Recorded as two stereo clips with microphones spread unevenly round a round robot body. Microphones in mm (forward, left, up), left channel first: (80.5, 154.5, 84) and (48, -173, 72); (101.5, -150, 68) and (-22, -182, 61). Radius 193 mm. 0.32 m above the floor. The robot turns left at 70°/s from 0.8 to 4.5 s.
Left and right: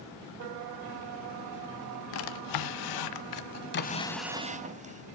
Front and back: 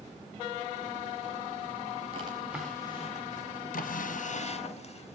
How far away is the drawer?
About 1.0 m.